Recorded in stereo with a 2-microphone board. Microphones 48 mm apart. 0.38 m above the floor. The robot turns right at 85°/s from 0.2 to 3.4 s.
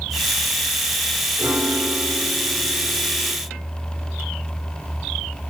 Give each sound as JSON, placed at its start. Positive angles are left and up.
{"t": 1.4, "sound": "a piano", "azimuth_deg": -105, "distance_m": 6.5}